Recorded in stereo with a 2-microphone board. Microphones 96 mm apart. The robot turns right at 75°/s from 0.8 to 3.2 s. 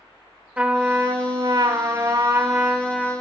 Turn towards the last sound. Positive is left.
turn(degrees=20)